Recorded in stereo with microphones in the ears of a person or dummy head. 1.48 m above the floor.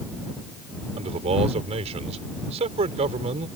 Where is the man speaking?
35° right (ahead or behind).